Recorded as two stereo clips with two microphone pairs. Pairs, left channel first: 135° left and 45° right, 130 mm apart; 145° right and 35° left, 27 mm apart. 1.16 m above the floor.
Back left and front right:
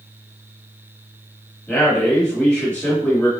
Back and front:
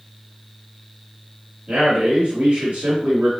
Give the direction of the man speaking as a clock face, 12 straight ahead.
10 o'clock.